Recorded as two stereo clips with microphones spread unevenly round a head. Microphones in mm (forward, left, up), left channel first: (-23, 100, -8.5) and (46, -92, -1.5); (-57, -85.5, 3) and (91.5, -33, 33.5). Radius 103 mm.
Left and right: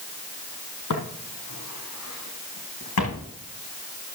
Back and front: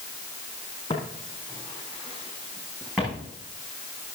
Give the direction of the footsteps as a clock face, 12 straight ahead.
8 o'clock.